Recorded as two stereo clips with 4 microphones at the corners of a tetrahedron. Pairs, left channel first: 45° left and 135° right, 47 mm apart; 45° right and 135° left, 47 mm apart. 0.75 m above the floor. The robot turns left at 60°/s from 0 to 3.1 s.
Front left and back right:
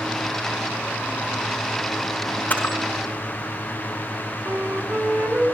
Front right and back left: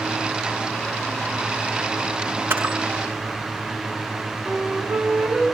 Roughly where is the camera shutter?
Left.